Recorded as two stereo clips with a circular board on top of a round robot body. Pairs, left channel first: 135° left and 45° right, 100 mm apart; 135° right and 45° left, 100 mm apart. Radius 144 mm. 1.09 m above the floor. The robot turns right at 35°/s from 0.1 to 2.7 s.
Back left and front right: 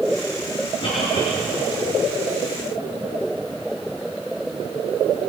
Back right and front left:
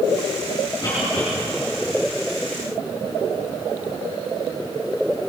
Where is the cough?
170° left, 4 m; by 1.3 s 175° right, 4 m.